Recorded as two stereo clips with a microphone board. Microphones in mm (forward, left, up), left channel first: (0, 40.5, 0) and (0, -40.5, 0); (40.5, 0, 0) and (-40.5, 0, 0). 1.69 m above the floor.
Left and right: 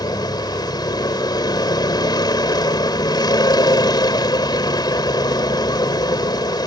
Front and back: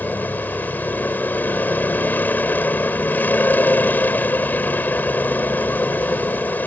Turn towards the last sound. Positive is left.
turn(degrees=65)